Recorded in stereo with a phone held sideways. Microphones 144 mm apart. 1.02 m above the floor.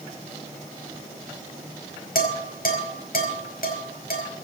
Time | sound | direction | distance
2.1 | dishes clattering | 70° left (ahead or behind) | 4.5 m